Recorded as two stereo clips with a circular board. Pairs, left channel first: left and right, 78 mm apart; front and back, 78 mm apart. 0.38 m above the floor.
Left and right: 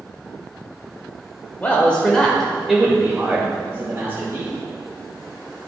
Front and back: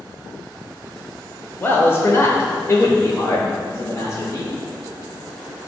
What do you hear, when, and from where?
1.6 s a man speaking: 35° left, 1.2 m; by 4.5 s 40° right, 1.8 m